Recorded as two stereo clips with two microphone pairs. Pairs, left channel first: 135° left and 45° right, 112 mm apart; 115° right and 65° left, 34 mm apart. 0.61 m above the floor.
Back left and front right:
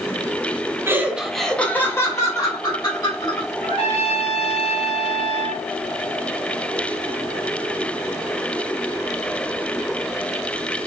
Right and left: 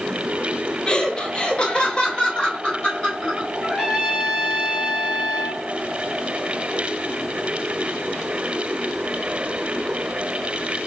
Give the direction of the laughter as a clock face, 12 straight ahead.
3 o'clock.